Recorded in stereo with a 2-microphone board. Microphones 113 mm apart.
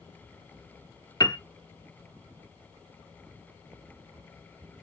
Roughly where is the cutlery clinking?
No cutlery clinking in this recording.